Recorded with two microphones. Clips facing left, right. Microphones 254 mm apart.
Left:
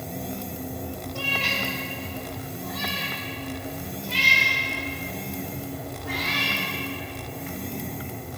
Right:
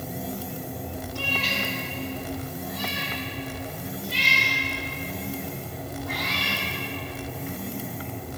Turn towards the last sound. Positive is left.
turn(degrees=80)